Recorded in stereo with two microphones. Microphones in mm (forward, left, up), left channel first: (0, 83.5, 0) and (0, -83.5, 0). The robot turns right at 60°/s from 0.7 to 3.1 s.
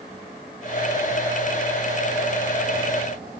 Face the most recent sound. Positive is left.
No sound to turn to.